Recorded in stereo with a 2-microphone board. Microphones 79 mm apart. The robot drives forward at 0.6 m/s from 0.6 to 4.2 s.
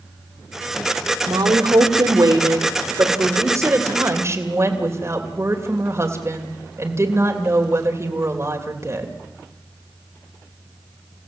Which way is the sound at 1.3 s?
70° right (ahead or behind).